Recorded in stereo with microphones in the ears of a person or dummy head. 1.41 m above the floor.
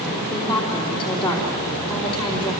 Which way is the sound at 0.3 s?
30° left (ahead or behind).